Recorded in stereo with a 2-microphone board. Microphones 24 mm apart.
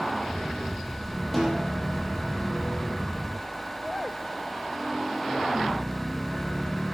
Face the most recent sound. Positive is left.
turn(degrees=5)  # may be behind; listen again after turning